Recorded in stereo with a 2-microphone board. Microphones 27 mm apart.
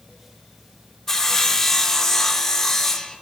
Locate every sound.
1.1 s sawing: 15° left (ahead or behind), 0.6 m